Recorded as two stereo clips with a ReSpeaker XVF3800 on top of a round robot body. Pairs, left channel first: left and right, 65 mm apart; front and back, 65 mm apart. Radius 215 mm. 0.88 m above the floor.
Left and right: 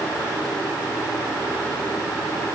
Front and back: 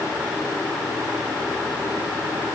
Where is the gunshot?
I don't hear a gunshot.